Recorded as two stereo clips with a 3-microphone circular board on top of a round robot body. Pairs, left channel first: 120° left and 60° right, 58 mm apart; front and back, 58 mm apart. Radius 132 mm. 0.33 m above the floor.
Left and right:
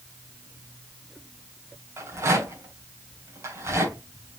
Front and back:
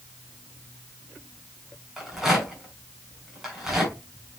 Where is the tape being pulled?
No tape being pulled in this recording.